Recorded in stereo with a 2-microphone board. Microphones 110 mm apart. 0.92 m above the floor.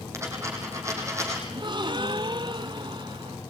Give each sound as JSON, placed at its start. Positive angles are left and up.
{"t": 0.1, "sound": "a dropped coin", "side_deg": -25, "distance_m": 6.5}
{"t": 1.5, "sound": "a gasp", "side_deg": -45, "distance_m": 0.9}